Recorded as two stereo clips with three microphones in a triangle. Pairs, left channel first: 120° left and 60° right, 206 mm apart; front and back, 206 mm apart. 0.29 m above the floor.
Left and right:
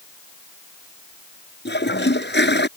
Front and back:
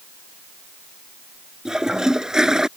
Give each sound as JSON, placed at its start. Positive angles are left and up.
{"t": 1.6, "sound": "a toilet flushing", "azimuth_deg": 95}